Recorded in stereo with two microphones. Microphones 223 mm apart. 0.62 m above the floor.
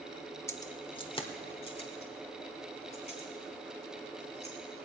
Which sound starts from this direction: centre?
Keys jangling, at 0.5 s.